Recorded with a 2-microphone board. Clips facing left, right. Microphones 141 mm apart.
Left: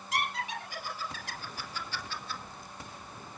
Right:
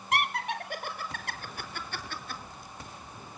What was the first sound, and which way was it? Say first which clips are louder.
Laughter: right 4 dB; 60° right (ahead or behind).